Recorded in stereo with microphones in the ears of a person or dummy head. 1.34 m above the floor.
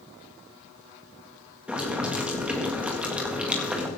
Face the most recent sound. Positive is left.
turn(degrees=-5)  # may be behind; listen again after turning